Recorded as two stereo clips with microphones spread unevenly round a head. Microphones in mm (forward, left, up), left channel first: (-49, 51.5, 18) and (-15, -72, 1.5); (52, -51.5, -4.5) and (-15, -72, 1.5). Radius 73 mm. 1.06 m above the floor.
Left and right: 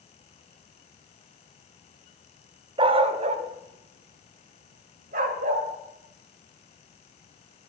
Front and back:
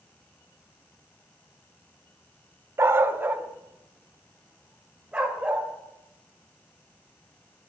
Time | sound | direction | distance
2.8 | a dog barking | 125° right | 0.7 m